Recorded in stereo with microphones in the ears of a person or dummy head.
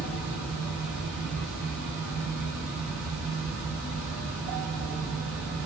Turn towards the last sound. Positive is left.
turn(degrees=-65)  # may be behind; listen again after turning